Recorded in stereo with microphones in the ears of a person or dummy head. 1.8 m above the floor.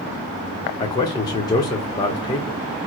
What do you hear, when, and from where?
0.8 s a man speaking: 20° left (ahead or behind), 1.0 m